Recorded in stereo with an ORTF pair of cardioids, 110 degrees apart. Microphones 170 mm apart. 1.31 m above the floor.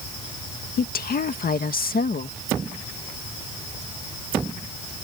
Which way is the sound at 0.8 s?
60° left.